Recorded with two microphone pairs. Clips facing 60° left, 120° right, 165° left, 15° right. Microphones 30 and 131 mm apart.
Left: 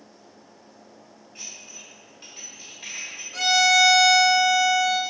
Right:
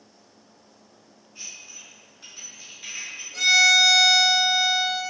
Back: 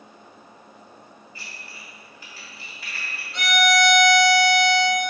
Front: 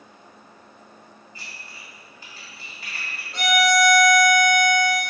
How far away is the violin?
About 1.2 m.